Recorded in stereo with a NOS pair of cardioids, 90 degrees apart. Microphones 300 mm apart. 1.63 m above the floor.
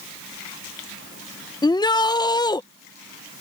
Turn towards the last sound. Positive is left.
turn(degrees=15)